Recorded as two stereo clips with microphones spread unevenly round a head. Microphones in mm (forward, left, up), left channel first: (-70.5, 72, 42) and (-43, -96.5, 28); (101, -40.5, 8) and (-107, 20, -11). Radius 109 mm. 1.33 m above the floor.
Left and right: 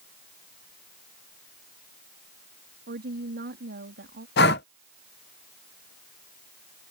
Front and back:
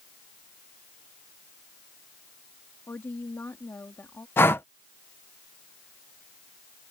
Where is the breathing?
65° left.